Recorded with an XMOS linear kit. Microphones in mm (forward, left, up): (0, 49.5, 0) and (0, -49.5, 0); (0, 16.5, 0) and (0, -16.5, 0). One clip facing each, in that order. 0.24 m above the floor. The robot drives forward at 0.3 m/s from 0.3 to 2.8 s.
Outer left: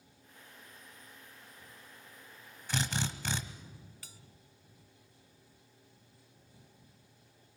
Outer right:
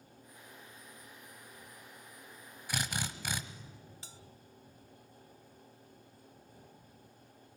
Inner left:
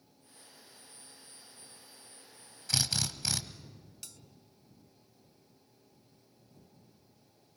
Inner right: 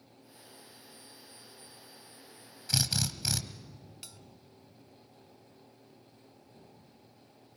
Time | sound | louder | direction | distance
2.7 | a drill | outer left 3 dB, inner right 1 dB | 10° right (ahead or behind) | 1.3 m
4.0 | a bell | outer right 3 dB, inner right 1 dB | 25° right (ahead or behind) | 0.7 m